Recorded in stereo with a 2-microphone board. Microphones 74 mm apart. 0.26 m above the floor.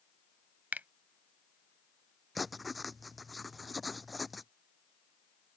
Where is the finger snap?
25° right (ahead or behind).